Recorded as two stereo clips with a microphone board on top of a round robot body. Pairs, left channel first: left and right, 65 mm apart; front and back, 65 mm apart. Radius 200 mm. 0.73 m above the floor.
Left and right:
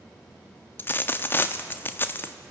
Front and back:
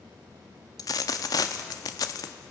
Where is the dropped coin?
30° left, 0.6 m.